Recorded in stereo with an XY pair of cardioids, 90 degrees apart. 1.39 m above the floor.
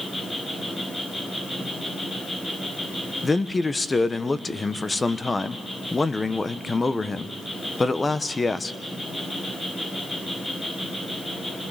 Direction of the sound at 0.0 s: 20° left.